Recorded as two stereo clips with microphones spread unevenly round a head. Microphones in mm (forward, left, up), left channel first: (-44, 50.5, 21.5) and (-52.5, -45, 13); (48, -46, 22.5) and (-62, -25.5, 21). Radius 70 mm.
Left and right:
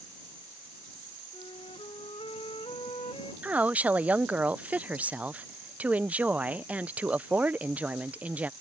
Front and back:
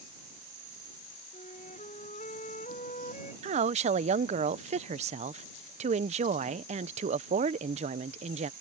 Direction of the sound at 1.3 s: 30° left.